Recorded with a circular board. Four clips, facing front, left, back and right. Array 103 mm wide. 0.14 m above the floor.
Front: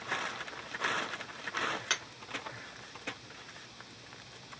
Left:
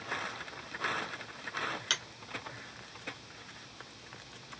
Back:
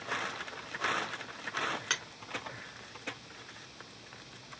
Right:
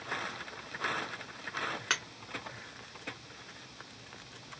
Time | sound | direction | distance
1.9 | a finger snap | 90° right | 1.2 m